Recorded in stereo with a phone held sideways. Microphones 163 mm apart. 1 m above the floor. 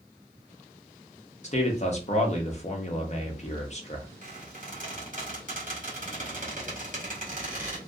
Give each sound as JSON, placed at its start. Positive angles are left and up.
{"t": 1.4, "sound": "a man speaking", "side_deg": 45, "distance_m": 0.8}
{"t": 4.2, "sound": "a squeak", "side_deg": -55, "distance_m": 1.8}